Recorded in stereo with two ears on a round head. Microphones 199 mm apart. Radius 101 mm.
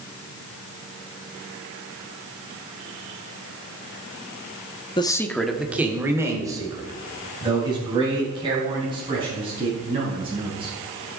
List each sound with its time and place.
5.0 s a man speaking: 25° left (ahead or behind), 0.8 m; by 10.7 s 25° right (ahead or behind), 7 m